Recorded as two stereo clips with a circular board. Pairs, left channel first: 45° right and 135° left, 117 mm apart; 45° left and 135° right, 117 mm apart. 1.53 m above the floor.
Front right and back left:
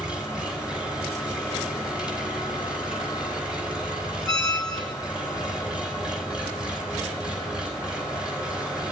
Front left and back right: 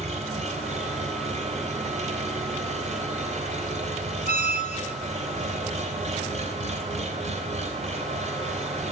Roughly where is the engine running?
Behind right.